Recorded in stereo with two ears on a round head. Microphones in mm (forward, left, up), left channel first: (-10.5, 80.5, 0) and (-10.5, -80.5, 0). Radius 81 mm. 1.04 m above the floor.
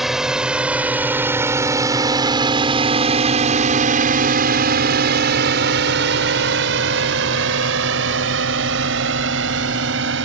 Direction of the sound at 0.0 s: Centre (ahead or behind).